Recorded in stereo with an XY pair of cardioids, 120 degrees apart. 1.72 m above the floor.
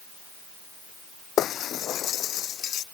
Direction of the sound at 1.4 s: 55° left.